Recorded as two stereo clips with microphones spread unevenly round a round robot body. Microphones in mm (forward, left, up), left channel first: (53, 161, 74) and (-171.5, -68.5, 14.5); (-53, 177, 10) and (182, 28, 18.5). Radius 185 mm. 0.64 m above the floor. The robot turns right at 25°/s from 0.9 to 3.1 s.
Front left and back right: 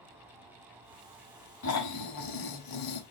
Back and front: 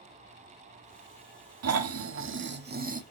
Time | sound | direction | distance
1.6 | snoring | 5° right | 1.0 m